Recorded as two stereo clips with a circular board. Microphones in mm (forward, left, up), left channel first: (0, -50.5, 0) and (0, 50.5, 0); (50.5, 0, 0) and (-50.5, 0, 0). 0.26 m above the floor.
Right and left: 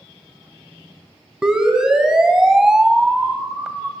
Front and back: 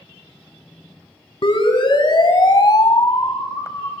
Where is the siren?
10° left, 3 m.